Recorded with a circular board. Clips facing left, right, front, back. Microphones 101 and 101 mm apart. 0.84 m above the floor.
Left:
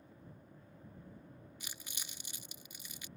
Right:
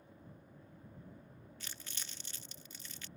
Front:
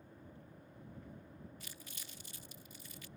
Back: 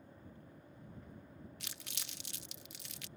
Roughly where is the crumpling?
Behind.